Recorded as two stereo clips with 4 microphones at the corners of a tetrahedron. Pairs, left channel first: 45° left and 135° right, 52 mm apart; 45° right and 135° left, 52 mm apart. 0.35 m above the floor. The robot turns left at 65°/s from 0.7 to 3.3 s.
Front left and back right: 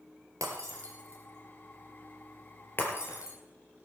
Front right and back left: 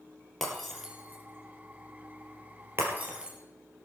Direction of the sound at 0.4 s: 135° right.